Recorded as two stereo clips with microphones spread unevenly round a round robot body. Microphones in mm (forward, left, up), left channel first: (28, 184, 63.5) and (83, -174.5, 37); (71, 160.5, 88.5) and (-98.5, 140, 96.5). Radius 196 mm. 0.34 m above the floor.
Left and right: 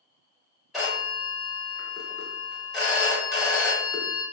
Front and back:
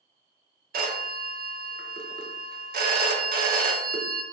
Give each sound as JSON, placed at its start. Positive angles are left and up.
{"t": 0.7, "sound": "a phone ringing", "azimuth_deg": -165, "distance_m": 0.6}